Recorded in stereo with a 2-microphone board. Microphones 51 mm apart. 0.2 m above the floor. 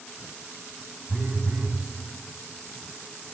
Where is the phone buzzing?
35° right (ahead or behind), 1.0 m.